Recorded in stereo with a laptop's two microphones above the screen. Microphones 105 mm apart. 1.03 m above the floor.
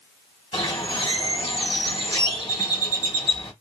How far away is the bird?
About 1.1 m.